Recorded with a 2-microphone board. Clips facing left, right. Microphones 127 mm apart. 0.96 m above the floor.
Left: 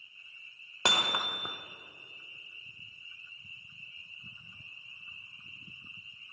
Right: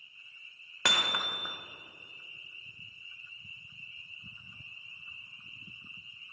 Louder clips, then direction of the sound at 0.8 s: Left 2 dB; 25° left (ahead or behind).